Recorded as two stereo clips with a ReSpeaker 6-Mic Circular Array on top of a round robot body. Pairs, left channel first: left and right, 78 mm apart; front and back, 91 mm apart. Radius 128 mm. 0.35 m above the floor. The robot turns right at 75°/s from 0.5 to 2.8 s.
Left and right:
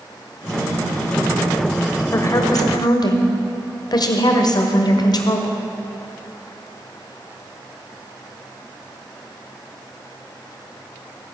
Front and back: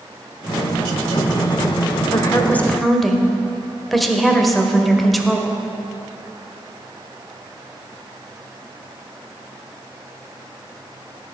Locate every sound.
2.1 s a woman speaking: 35° left, 1.6 m; by 5.6 s 90° left, 1.6 m